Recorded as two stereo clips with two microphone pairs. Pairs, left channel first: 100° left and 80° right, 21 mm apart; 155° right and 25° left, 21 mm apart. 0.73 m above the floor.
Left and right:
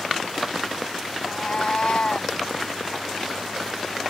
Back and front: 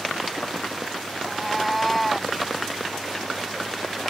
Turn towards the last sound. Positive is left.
turn(degrees=110)